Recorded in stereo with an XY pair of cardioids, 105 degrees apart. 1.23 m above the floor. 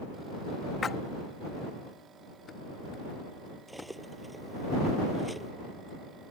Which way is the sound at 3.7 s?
5° right.